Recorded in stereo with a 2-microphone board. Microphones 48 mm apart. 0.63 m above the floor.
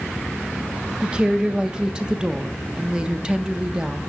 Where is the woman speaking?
20° right (ahead or behind), 0.6 m.